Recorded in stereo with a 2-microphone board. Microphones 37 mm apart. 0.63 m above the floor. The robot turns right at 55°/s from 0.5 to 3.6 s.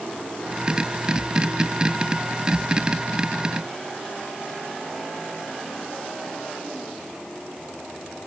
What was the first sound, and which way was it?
Only background noise.